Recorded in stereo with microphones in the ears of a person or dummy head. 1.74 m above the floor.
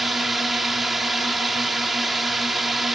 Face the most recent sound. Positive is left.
turn(degrees=-5)  # may be behind; listen again after turning